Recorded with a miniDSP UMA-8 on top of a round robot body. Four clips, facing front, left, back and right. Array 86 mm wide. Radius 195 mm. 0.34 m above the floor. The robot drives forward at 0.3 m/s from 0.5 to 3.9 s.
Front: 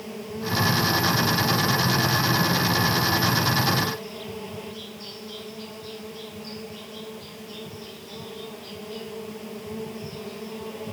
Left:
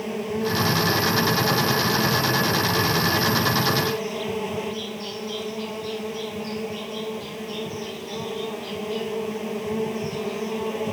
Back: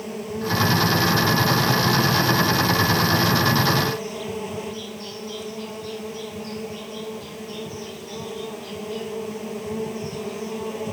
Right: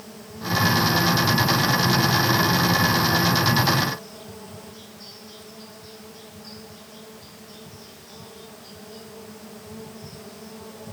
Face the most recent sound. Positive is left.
turn(degrees=105)